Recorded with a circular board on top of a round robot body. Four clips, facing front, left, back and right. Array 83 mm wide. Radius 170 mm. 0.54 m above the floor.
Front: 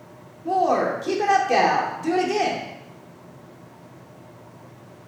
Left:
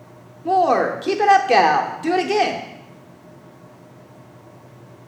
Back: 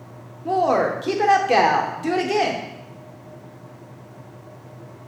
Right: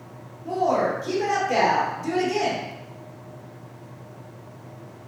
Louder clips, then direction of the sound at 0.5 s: Left 6 dB, back 1 dB; 105° left.